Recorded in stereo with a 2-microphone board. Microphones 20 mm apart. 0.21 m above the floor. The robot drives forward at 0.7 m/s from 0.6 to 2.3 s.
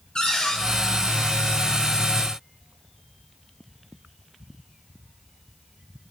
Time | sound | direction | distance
0.1 | a cupboard door | 40° left (ahead or behind) | 1.7 m